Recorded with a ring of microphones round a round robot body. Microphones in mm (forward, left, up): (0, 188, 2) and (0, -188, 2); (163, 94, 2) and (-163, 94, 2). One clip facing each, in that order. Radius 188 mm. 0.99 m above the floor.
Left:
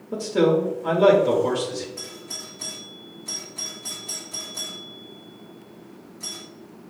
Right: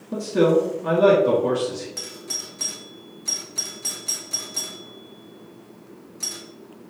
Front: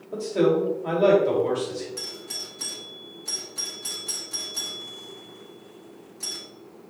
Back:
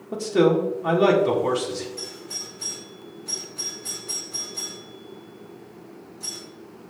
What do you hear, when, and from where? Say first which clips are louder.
0.1 s a man speaking: right 1 dB, back 2 dB; straight behind, 1.6 m
2.0 s a doorbell: right 1 dB, back 2 dB; 50° right, 1.7 m